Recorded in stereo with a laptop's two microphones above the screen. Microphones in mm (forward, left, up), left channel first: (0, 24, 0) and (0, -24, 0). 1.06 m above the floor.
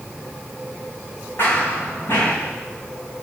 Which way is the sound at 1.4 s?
45° left (ahead or behind).